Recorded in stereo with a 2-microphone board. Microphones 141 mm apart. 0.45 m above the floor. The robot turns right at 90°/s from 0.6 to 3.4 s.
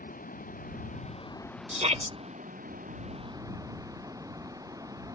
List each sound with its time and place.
0.0 s running water: 80° left; by 5.2 s 25° right
1.7 s a shout: 105° right; by 2.1 s 65° right